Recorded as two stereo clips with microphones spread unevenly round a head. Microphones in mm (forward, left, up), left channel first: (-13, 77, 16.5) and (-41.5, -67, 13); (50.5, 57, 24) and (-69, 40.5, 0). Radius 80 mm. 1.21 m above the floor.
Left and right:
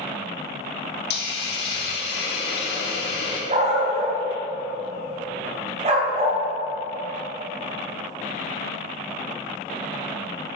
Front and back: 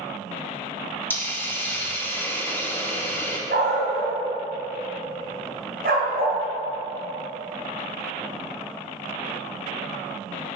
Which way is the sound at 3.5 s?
150° right.